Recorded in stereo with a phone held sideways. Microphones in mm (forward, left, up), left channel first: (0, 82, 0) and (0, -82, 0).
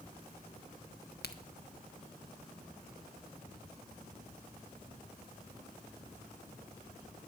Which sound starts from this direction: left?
A crack, at 1.2 s.